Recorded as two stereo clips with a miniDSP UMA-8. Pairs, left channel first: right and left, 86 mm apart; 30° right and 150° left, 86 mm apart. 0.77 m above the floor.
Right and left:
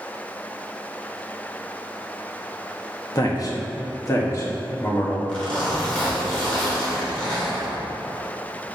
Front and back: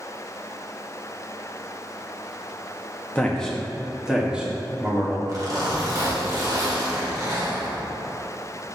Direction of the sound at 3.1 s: 100° right.